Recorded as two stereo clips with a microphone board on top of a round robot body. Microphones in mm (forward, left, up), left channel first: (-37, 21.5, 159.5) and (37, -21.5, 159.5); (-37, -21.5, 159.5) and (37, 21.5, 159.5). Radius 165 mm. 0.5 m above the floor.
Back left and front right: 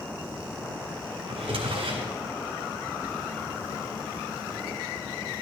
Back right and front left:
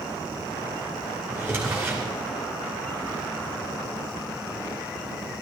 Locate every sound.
1.3 s a drawer: 40° right, 2 m